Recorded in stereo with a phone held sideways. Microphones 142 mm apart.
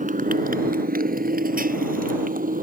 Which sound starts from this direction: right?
A motorcycle, at 0.0 s.